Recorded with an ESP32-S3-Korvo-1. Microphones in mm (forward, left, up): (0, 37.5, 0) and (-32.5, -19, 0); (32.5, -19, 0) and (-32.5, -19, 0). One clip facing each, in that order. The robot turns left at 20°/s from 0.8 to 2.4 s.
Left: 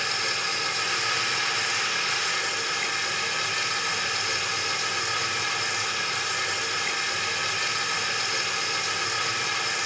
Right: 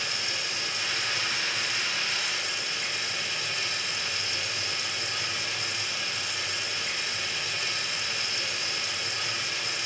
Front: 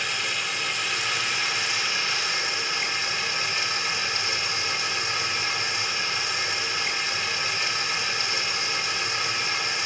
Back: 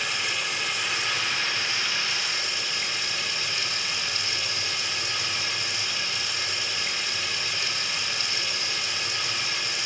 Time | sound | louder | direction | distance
0.0 | running water | left 5 dB, even | 90° left | 2 m